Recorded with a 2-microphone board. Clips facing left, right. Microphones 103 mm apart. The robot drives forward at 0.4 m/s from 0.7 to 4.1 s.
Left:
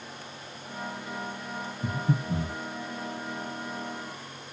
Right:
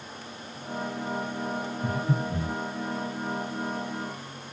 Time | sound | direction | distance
1.8 | breathing | 30° left (ahead or behind) | 3.5 m